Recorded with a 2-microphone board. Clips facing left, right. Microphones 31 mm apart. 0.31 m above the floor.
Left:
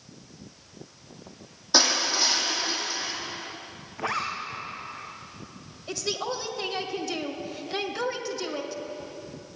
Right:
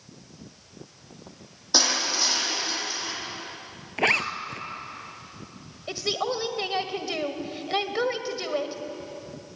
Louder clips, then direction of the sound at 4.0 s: Right 6 dB; 80° right.